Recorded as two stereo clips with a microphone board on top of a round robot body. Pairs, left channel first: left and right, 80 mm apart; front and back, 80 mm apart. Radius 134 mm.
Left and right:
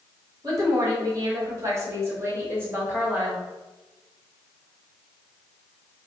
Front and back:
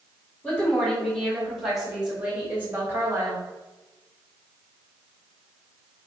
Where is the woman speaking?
70° right, 1.8 m; by 3.4 s 155° right, 1.6 m.